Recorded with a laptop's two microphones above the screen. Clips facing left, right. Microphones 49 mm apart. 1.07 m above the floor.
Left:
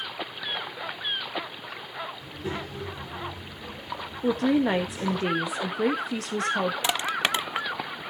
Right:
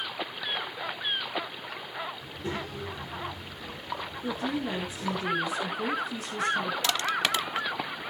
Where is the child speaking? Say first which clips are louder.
Left 1 dB; centre (ahead or behind), 2.5 m; by 5.2 s 40° left (ahead or behind), 2.5 m.